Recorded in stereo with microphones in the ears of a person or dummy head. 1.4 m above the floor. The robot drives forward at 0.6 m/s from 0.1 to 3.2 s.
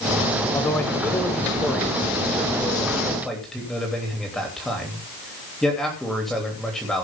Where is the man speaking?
20° left (ahead or behind), 1.4 m; by 7.0 s 10° left (ahead or behind), 3 m.